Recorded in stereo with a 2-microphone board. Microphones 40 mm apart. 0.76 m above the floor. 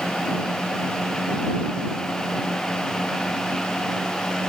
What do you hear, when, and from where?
Only background noise.